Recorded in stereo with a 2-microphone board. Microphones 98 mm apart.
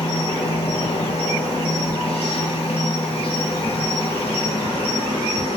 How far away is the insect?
About 0.9 m.